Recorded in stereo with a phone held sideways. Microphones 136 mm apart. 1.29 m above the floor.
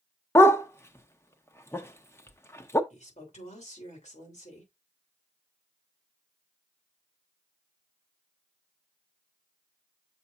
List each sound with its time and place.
0.3 s a dog barking: 20° left (ahead or behind), 0.8 m
2.9 s a woman speaking: 65° left (ahead or behind), 3.5 m